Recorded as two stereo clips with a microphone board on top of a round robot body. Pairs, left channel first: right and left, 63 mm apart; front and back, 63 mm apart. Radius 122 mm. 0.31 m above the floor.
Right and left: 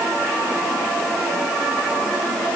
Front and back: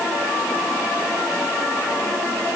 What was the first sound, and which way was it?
Only background noise.